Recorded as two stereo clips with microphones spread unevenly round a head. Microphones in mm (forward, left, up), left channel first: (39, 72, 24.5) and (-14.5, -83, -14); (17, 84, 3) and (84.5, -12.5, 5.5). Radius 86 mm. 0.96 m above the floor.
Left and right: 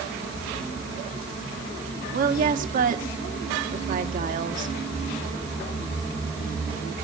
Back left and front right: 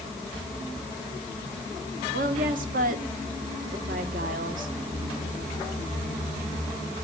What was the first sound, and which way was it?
A woman speaking, 75° right.